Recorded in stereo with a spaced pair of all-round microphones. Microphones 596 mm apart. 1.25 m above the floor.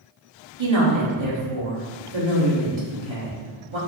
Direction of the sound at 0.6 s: 45° right (ahead or behind).